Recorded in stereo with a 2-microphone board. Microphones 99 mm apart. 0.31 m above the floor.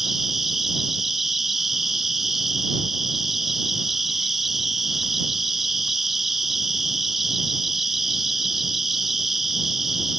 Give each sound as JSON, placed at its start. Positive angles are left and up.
{"t": 0.0, "sound": "an insect", "side_deg": 0}